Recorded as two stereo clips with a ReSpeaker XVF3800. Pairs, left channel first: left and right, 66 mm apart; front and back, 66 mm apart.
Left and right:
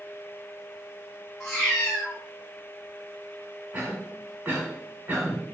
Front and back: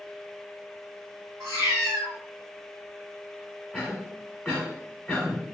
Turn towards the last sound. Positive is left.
turn(degrees=-90)